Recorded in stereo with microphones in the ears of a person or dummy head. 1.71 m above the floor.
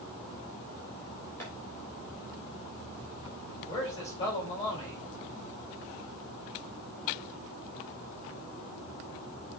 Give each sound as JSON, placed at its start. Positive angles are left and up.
{"t": 1.4, "sound": "tapping", "side_deg": 10, "distance_m": 3.5}
{"t": 3.7, "sound": "a man speaking", "side_deg": 25, "distance_m": 4.0}